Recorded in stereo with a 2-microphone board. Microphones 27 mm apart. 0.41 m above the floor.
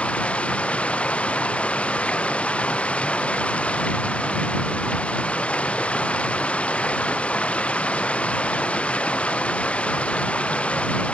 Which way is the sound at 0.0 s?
55° left (ahead or behind).